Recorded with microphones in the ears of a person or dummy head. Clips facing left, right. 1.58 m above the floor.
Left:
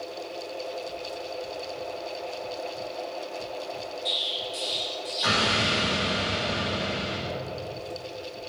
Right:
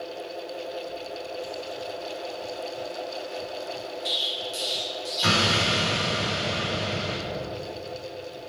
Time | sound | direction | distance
4.0 | an explosion | 40° right (ahead or behind) | 1.8 m